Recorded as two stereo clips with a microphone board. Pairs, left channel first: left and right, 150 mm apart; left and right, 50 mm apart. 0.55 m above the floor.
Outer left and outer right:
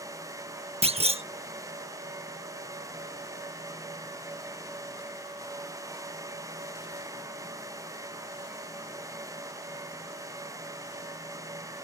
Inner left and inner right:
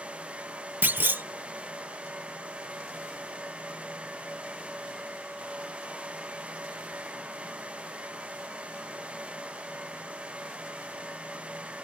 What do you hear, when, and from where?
0.8 s a clunk: 40° right (ahead or behind)